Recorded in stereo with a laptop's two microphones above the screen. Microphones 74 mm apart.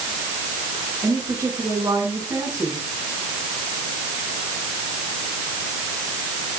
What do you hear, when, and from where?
1.0 s a woman speaking: 30° right (ahead or behind), 8 m